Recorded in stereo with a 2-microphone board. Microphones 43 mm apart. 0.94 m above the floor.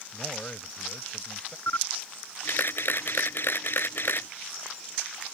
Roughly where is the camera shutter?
Left.